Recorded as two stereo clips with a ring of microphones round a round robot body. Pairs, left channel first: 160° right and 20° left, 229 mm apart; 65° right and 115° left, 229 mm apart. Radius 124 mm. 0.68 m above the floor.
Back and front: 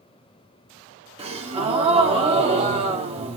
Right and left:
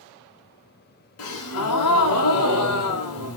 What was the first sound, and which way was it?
A gasp, 45° right.